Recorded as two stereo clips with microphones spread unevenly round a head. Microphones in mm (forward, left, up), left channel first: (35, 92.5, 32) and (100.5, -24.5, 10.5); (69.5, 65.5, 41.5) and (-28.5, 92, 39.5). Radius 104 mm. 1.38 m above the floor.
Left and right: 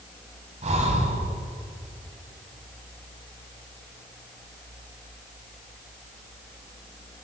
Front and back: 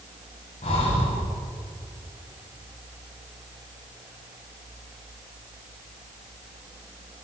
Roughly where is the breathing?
Ahead right.